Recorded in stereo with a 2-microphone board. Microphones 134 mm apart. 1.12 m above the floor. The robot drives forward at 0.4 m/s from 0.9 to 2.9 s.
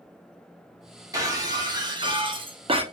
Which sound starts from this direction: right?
Breaking glass, at 1.1 s.